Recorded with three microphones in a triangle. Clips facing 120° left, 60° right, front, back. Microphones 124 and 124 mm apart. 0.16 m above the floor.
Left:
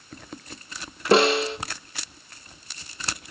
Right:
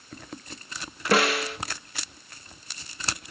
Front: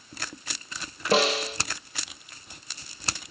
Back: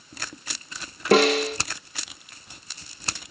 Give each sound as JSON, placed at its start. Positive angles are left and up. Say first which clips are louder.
{"t": 1.1, "sound": "a snare drum", "louder": "left 5 dB, back 5 dB", "azimuth_deg": 180, "distance_m": 1.5}